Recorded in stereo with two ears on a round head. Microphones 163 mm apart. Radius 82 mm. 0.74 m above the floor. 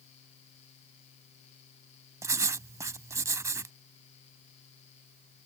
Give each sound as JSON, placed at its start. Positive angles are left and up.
{"t": 2.2, "sound": "writing", "side_deg": -15}